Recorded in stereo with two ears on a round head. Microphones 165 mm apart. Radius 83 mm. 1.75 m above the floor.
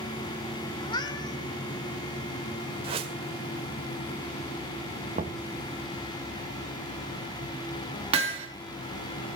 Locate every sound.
0.8 s a cat meowing: 25° left (ahead or behind), 1.7 m
2.8 s a whoosh: 35° right (ahead or behind), 1.8 m
5.2 s knocking: 40° right (ahead or behind), 1.5 m
8.1 s hammering: 35° right (ahead or behind), 3.5 m